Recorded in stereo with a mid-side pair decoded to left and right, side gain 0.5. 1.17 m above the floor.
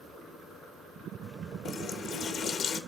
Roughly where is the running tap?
Ahead left.